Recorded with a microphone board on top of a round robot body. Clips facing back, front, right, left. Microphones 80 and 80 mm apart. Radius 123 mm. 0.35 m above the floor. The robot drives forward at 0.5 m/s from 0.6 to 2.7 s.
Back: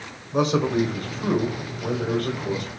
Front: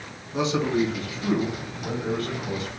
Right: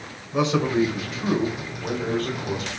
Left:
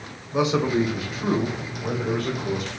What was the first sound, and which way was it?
A man speaking, 165° left.